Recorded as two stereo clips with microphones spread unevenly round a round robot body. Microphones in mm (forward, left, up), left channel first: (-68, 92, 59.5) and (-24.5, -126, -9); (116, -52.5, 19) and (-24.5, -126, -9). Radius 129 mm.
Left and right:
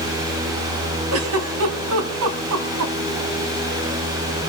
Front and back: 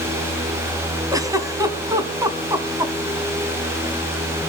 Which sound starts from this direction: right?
A giggle, at 1.1 s.